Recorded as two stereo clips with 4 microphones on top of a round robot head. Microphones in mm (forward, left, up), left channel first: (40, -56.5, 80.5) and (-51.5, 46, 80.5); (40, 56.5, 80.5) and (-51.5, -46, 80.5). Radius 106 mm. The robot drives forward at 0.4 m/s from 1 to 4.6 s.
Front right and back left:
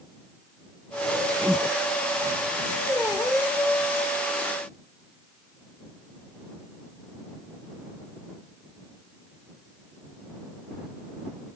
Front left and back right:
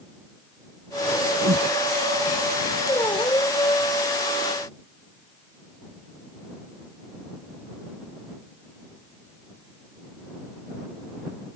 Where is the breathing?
140° right; by 1.8 s 145° right.